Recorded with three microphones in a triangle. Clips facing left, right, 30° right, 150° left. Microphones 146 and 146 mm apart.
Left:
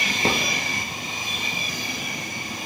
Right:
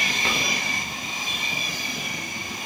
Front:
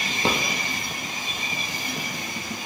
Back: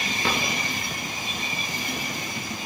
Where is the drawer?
35° left, 3 m.